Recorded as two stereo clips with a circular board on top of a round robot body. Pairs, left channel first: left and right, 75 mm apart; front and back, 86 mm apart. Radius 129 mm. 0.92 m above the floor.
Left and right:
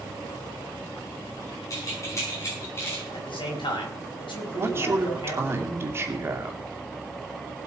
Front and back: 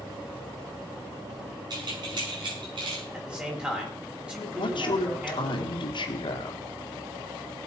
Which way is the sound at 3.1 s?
100° left.